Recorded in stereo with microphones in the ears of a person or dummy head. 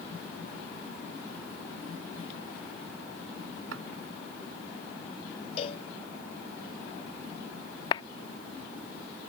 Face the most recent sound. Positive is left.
turn(degrees=25)  # may be behind; listen again after turning